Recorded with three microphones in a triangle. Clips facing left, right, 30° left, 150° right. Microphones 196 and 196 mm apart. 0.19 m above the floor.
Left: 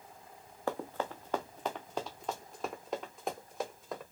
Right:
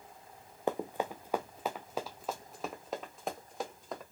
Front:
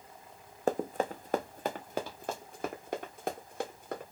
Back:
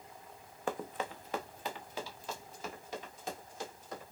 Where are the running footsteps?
20° right, 0.6 m; by 4.0 s straight ahead, 2.5 m.